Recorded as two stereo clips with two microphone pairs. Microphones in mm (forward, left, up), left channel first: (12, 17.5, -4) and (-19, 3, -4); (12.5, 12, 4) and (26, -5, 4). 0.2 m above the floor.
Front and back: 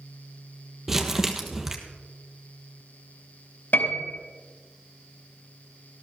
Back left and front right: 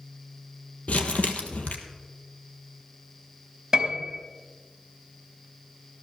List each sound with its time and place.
0.9 s crumpling: 125° left, 1.4 m
3.7 s a piano: 10° left, 3.5 m